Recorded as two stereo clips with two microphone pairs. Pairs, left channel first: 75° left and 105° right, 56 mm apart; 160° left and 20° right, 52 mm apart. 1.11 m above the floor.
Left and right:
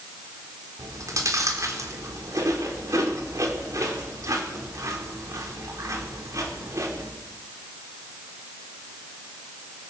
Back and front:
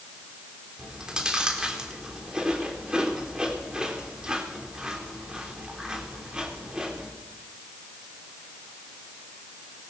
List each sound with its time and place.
0.8 s chewing: 95° right, 3.5 m